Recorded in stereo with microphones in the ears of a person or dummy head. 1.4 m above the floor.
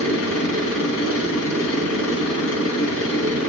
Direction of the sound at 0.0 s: 70° left (ahead or behind).